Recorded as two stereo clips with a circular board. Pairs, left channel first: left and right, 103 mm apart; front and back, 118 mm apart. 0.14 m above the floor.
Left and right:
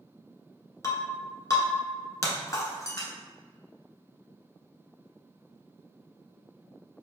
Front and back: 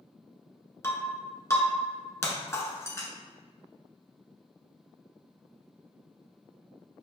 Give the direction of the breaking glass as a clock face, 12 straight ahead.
10 o'clock.